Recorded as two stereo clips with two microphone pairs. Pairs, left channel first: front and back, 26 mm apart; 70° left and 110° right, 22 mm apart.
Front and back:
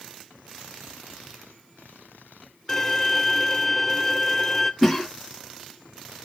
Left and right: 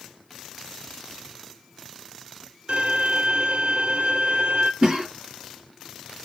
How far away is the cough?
About 1.8 m.